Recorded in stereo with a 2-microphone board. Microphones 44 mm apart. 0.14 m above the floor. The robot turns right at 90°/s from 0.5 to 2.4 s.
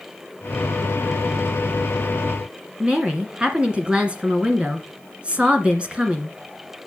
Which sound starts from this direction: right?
A woman speaking, at 2.8 s.